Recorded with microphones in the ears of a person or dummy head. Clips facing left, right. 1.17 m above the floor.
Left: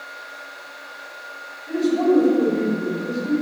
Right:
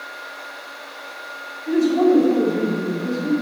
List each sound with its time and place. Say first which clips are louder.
1.7 s a man speaking: right 3 dB; 75° right (ahead or behind), 2.5 m